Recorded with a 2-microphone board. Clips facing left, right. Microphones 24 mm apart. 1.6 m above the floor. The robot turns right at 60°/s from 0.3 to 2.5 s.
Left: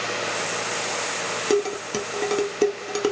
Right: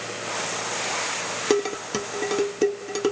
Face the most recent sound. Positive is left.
turn(degrees=10)  # may be behind; listen again after turning